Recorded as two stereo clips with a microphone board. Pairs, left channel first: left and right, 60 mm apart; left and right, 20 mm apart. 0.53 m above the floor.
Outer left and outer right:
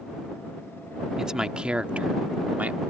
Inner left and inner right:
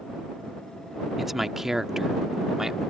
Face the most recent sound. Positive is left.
turn(degrees=-25)  # may be behind; listen again after turning